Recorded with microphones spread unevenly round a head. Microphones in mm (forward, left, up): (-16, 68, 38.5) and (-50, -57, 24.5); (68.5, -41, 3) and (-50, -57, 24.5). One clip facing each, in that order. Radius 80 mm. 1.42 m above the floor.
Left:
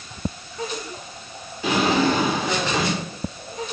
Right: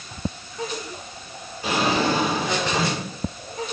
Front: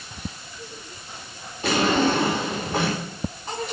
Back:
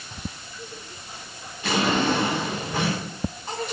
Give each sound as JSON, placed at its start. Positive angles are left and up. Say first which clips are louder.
{"t": 1.6, "sound": "a drawer", "louder": "left 2 dB, front 2 dB", "azimuth_deg": 85, "distance_m": 2.5}